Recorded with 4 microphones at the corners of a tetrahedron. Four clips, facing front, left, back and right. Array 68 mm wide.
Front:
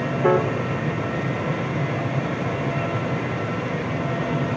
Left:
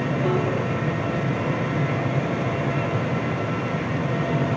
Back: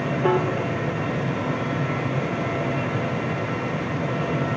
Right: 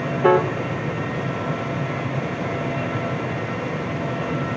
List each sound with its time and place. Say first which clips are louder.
0.2 s a piano: right 9 dB, front 3 dB; 70° right, 0.9 m